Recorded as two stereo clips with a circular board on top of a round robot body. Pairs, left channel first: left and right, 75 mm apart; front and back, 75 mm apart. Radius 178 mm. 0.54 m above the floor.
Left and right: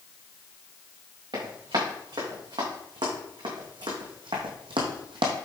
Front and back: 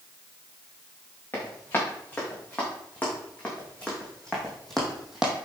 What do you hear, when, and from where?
1.3 s running footsteps: 65° right, 4 m; by 5.3 s 100° right, 1.3 m